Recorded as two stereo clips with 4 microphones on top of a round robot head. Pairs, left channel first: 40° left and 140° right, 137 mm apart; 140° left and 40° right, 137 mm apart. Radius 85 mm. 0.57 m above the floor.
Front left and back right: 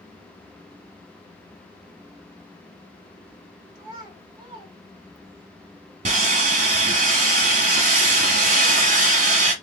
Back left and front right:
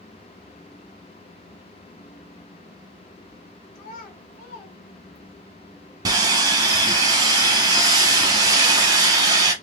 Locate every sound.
3.8 s a child speaking: 175° left, 2 m
6.0 s sawing: 100° right, 1.0 m